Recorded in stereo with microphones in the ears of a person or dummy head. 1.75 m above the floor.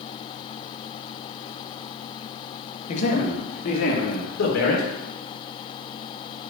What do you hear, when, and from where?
2.9 s a man speaking: 45° left (ahead or behind), 2 m; by 4.9 s 65° left (ahead or behind), 3 m